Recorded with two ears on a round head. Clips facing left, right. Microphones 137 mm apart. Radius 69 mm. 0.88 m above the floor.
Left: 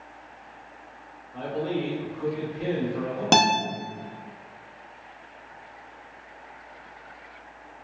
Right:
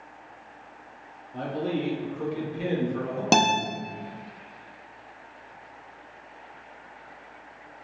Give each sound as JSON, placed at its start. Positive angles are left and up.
{"t": 1.3, "sound": "a man speaking", "side_deg": -55, "distance_m": 1.6}
{"t": 3.3, "sound": "a guitar", "side_deg": -5, "distance_m": 0.6}